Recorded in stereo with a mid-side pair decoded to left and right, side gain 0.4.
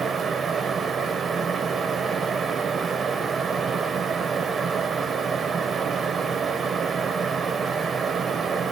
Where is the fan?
50° right, 0.9 m.